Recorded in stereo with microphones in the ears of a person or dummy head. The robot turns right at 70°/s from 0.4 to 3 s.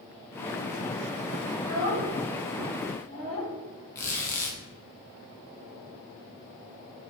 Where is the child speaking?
75° right (ahead or behind), 1.8 m; by 3.5 s 10° left (ahead or behind), 1.8 m.